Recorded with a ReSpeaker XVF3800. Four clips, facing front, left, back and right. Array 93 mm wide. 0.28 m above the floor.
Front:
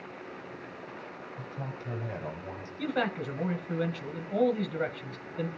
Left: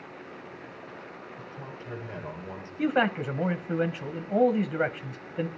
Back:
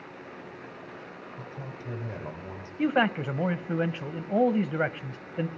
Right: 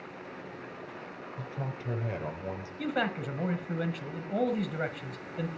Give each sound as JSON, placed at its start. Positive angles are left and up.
{"t": 1.4, "sound": "a man speaking", "azimuth_deg": -95, "distance_m": 7.5}
{"t": 2.8, "sound": "a man speaking", "azimuth_deg": 145, "distance_m": 1.2}